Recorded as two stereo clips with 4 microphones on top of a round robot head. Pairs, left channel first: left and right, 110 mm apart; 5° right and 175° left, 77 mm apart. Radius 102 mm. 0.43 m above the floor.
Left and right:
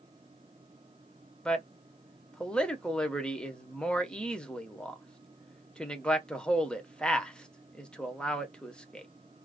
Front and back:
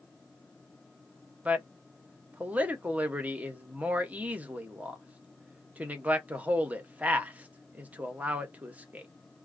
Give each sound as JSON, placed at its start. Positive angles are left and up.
{"t": 1.4, "sound": "a man speaking", "azimuth_deg": 155, "distance_m": 0.8}